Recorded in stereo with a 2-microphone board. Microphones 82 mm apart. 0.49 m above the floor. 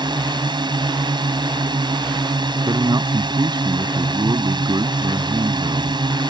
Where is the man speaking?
55° right (ahead or behind).